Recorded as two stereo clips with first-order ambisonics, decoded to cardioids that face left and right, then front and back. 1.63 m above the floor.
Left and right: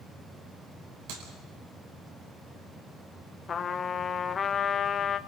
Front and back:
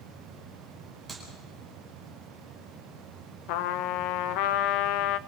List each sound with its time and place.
1.1 s a clap: 100° right, 4.5 m
3.5 s a trumpet: 20° left, 0.7 m